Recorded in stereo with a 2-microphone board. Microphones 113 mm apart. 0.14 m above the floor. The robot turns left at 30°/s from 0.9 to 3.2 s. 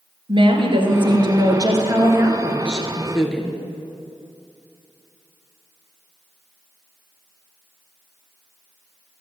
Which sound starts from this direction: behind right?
A woman speaking, at 0.3 s.